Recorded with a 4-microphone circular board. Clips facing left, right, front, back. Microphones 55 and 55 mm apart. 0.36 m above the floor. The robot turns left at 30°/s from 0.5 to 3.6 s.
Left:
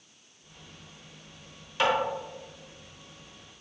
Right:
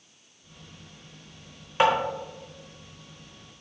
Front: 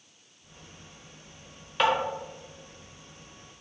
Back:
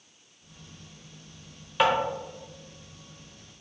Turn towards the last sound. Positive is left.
turn(degrees=-155)